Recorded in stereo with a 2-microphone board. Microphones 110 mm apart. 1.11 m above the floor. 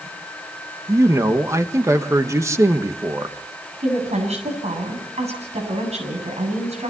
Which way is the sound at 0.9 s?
25° right (ahead or behind).